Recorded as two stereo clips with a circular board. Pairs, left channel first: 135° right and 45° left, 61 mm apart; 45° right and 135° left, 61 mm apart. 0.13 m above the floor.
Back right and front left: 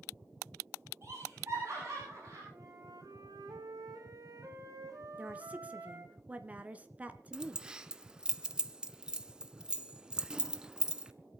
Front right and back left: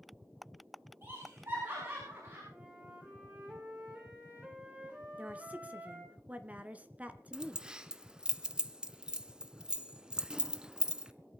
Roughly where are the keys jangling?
Left.